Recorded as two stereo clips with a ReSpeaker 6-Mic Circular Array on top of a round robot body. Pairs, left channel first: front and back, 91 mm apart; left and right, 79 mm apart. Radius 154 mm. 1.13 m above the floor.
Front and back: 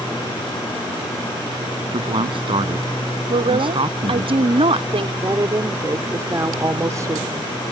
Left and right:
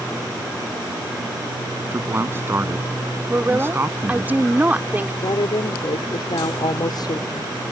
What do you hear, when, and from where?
1.9 s a man speaking: 150° right
3.3 s a woman speaking: 160° right
5.2 s a woman speaking: 125° left